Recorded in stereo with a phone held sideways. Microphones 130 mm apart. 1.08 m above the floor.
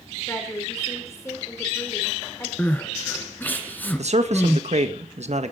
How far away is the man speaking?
About 1.6 m.